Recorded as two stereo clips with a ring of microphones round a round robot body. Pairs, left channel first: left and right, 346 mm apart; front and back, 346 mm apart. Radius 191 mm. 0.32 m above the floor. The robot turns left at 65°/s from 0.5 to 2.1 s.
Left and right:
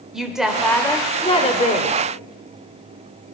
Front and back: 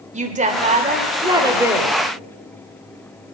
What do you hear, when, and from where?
0.1 s a woman speaking: 175° right, 1.1 m; by 1.9 s 90° left, 1.1 m